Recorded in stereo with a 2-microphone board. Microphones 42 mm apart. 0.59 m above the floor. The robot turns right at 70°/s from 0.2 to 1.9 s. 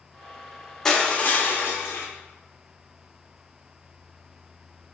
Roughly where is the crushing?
Ahead.